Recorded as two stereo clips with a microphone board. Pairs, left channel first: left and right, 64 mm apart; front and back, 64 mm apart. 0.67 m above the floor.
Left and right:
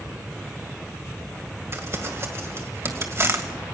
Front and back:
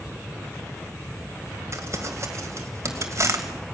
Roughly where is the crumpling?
Behind right.